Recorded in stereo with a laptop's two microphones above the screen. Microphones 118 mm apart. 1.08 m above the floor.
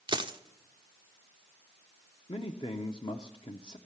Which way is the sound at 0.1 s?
45° right (ahead or behind).